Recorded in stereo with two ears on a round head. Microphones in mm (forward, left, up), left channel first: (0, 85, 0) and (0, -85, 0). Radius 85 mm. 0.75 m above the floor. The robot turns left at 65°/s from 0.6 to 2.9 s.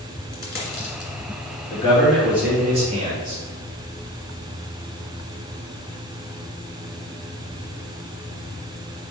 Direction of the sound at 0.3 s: 55° left (ahead or behind).